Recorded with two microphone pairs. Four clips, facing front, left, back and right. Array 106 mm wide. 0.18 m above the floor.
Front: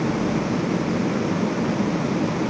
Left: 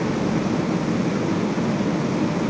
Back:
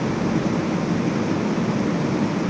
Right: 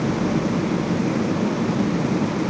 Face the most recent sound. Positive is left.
No sound to turn to.